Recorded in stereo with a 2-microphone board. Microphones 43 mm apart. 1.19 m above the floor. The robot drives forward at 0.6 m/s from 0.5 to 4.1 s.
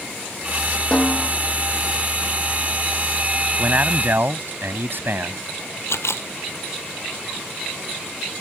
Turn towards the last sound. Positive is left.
turn(degrees=80)